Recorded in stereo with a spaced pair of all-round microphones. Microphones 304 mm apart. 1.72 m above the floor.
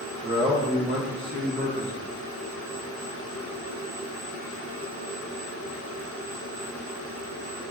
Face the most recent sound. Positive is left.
turn(degrees=-35)  # may be behind; listen again after turning